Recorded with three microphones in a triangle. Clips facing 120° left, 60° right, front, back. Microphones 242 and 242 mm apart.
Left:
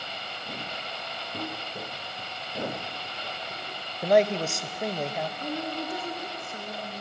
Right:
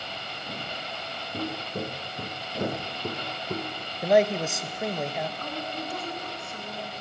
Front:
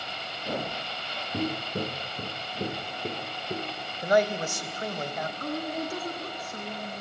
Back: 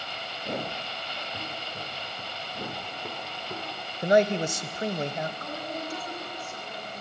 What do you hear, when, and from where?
1.3 s footsteps: 15° left, 0.6 m; by 3.9 s 70° right, 1.3 m
4.0 s a man speaking: 145° right, 0.9 m
5.4 s a woman speaking: 50° left, 2.5 m